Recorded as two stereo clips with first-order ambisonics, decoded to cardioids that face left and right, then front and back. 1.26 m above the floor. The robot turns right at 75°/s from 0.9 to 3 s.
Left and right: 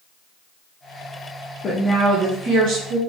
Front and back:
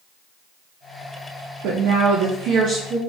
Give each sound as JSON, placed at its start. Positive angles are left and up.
{"t": 1.6, "sound": "a woman speaking", "azimuth_deg": 155, "distance_m": 0.8}